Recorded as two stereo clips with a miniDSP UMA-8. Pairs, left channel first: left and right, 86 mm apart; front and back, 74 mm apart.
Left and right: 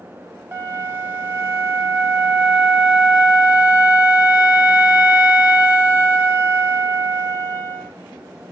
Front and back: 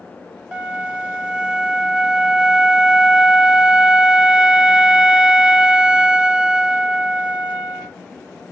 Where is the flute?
120° right, 0.8 m.